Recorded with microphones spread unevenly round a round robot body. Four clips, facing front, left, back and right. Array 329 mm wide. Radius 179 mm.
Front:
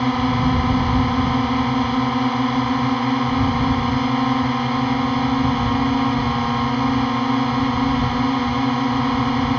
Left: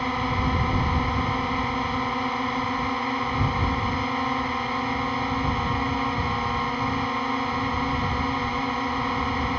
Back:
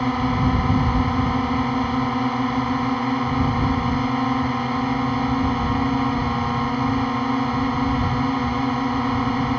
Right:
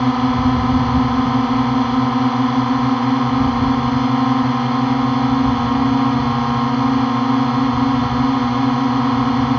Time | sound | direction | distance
0.0 | a drone | 70° right | ?